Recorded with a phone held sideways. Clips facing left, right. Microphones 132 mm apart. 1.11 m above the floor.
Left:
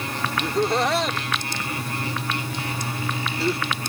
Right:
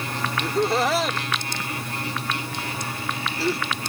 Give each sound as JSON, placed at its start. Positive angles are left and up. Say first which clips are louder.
{"t": 0.4, "sound": "laughter", "louder": "even", "side_deg": -5}